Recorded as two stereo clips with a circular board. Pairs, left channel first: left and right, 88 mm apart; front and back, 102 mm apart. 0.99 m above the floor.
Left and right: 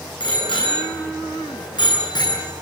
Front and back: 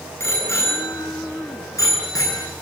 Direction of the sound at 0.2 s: 65° left.